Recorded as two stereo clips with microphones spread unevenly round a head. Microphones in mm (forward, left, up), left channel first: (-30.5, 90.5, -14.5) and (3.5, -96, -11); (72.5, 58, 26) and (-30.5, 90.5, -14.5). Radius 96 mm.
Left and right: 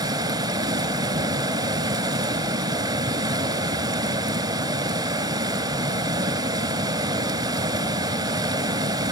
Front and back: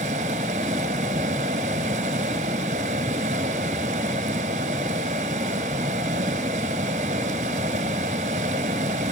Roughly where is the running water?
Behind right.